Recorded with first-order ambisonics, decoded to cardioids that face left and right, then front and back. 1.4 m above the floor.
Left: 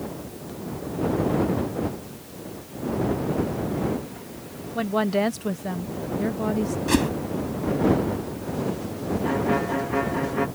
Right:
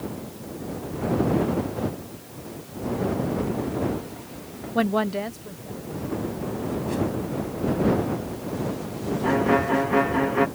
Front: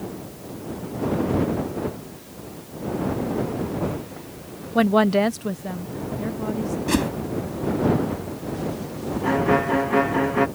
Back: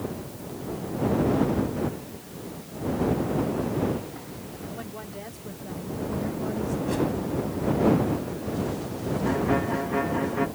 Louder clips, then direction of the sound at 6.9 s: Left 5 dB, front 4 dB; 50° left.